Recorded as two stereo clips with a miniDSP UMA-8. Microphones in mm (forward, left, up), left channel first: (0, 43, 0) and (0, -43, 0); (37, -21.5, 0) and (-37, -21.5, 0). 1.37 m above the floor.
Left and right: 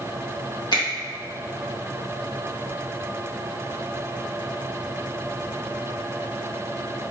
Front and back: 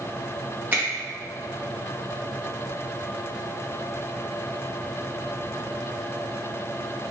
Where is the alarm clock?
I don't hear an alarm clock.